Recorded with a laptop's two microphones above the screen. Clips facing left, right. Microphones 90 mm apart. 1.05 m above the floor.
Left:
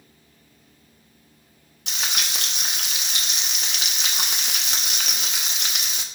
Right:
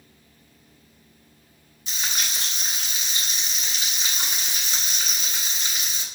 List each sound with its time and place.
1.9 s frying: 70° left (ahead or behind), 0.7 m